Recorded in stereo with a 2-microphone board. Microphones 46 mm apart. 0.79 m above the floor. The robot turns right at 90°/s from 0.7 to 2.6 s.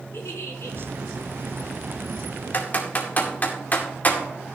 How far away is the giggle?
About 4 m.